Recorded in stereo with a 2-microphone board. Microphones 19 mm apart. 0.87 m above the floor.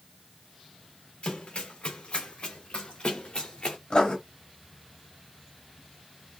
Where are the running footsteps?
80° left, 4.5 m; by 3.8 s 70° left (ahead or behind), 3 m.